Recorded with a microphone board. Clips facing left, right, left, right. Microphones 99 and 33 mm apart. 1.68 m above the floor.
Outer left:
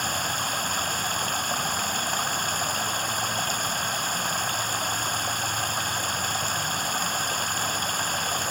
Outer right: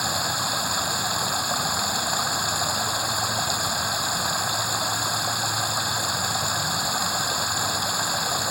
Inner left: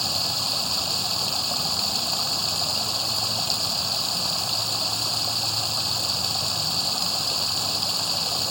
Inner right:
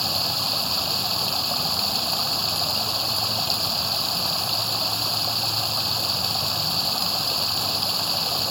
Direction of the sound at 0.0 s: 10° right (ahead or behind).